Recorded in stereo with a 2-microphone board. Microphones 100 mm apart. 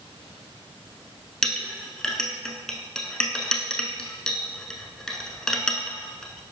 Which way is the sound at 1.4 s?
5° left (ahead or behind).